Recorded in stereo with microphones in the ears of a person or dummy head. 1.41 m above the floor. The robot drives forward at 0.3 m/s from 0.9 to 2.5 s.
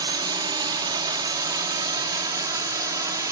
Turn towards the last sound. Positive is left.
turn(degrees=-25)  # may be behind; listen again after turning